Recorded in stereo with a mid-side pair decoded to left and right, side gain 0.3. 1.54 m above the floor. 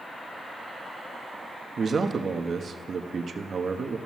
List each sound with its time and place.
1.8 s a man speaking: 60° right, 1.1 m